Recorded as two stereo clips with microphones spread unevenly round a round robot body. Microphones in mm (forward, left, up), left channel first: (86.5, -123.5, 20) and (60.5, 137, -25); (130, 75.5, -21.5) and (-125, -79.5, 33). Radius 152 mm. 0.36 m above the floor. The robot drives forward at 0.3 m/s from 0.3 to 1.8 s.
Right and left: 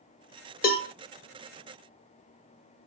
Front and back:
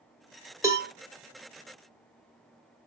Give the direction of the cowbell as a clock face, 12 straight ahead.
2 o'clock.